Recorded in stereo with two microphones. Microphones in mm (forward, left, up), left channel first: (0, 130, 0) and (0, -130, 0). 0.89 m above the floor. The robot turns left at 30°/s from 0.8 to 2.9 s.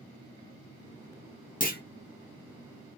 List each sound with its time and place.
1.6 s a clunk: 30° left (ahead or behind), 0.6 m; by 1.8 s 40° left (ahead or behind), 0.6 m